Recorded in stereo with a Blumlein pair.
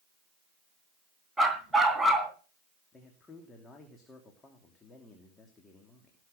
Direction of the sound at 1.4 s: 10° right.